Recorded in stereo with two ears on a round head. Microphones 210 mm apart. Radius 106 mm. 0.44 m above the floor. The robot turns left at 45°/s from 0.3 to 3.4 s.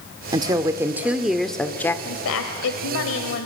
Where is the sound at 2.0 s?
115° left, 1.6 m; by 3.5 s 55° left, 1.6 m.